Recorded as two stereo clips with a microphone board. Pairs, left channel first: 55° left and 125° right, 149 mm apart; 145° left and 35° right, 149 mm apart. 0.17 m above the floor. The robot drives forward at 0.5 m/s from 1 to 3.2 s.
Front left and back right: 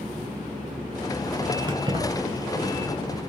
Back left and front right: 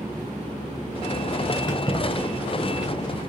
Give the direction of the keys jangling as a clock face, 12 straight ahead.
6 o'clock.